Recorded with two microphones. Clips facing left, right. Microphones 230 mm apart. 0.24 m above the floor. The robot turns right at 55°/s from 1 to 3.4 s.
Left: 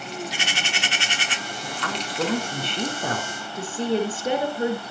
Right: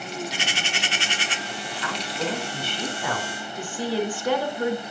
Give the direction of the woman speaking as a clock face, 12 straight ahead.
10 o'clock.